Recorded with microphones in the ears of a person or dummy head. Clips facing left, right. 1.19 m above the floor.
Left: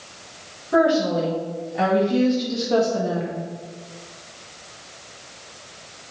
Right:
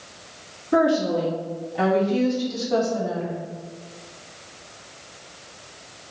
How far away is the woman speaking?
About 3 m.